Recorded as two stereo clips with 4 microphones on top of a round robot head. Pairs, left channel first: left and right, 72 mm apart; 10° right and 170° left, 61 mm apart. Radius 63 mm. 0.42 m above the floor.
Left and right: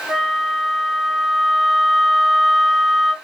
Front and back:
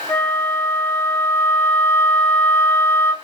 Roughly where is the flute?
Ahead.